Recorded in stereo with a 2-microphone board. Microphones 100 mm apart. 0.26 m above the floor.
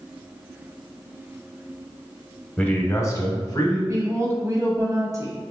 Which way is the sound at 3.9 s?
30° right (ahead or behind).